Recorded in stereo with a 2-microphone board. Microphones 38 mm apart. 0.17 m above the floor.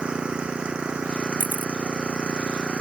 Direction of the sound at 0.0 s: 25° right (ahead or behind).